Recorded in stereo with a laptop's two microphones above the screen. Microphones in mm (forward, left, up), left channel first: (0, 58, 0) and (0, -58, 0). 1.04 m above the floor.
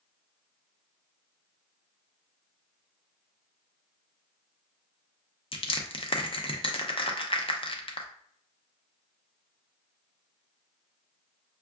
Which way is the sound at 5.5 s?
50° left (ahead or behind).